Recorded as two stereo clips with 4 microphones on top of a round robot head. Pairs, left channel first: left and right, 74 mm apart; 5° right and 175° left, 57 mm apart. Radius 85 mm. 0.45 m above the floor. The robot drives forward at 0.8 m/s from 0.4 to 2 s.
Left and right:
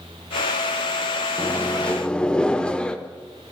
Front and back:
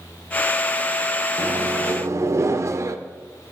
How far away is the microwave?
About 0.5 m.